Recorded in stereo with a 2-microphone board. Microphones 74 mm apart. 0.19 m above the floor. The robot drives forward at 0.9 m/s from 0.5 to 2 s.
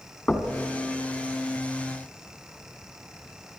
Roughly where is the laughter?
No laughter in this recording.